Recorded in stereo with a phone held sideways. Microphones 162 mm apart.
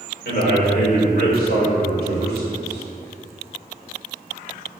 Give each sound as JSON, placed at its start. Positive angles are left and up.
{"t": 0.2, "sound": "a man speaking", "side_deg": 80, "distance_m": 4.5}